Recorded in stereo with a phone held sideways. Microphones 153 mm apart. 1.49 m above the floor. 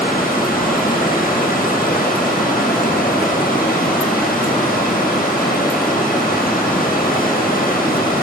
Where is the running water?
70° left (ahead or behind), 1.3 m.